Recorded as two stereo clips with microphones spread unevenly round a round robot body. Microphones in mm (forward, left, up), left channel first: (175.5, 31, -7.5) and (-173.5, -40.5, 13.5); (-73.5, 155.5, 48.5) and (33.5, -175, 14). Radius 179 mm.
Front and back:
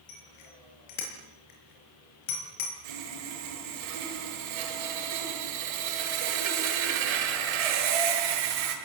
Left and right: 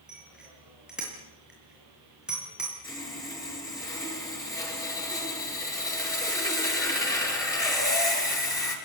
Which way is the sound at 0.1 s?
15° left.